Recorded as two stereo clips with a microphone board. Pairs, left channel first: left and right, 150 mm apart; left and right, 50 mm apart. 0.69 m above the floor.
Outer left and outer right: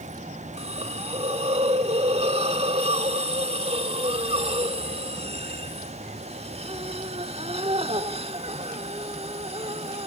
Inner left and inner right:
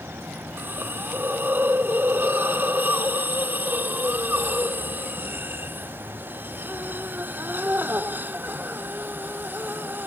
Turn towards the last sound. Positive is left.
turn(degrees=-40)  # may be behind; listen again after turning